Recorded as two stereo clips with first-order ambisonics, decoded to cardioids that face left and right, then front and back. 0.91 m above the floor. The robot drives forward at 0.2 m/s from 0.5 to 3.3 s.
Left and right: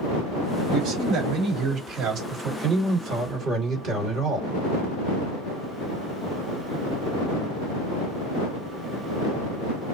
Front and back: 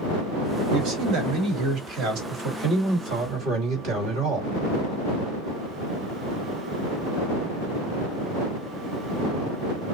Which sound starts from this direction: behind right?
A man speaking, at 0.7 s.